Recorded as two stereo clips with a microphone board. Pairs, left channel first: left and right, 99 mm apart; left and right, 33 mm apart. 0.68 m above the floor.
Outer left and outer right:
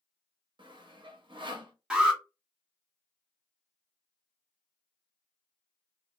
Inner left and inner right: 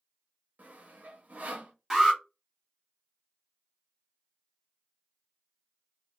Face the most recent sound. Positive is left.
turn(degrees=-5)  # may be behind; listen again after turning